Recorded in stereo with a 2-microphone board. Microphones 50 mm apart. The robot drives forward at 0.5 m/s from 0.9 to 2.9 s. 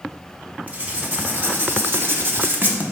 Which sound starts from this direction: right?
Writing, at 0.7 s.